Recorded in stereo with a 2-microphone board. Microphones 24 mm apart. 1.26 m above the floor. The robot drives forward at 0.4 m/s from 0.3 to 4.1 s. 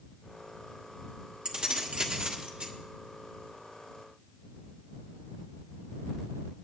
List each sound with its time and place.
1.4 s keys jangling: 40° right (ahead or behind), 1.7 m; by 2.7 s 50° right (ahead or behind), 1.4 m